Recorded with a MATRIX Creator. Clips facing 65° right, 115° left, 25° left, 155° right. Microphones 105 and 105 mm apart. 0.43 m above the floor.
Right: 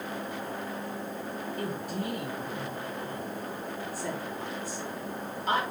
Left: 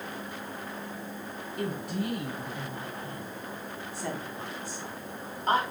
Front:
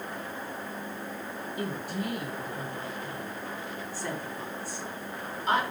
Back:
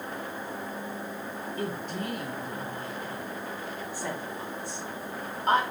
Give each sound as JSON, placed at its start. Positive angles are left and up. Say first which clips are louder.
{"t": 1.6, "sound": "a woman speaking", "louder": "left 4 dB, even", "azimuth_deg": 100, "distance_m": 4.5}